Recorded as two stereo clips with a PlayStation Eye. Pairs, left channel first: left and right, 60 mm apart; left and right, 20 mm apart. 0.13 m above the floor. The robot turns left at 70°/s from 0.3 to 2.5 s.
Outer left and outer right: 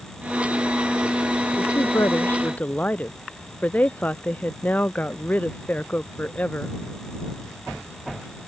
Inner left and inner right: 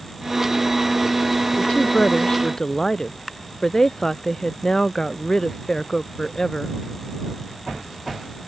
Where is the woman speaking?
90° left; by 6.7 s 25° left.